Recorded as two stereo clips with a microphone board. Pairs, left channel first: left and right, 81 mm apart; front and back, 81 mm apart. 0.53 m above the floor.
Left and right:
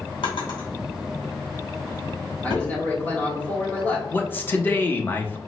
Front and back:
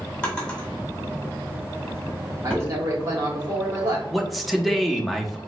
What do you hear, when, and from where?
0.2 s a drawer: 80° left, 2 m
2.4 s a man speaking: 150° left, 1.7 m
4.1 s a man speaking: 90° left, 0.6 m